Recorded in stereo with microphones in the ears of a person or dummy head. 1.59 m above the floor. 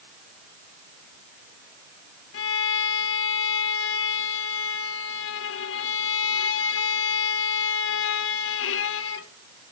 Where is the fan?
I don't hear a fan.